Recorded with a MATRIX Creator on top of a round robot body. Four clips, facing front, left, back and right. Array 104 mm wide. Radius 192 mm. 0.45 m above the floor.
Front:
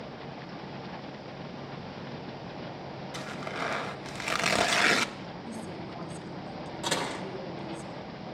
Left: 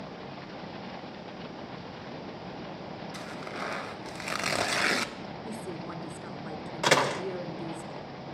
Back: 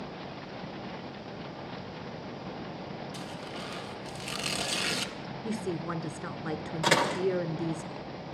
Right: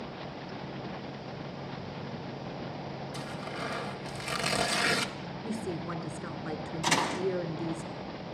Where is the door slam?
115° left, 1.9 m.